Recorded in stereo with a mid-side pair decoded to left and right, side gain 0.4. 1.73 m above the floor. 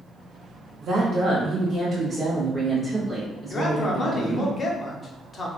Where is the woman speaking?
60° right, 1.5 m; by 4.5 s 20° left, 2.0 m.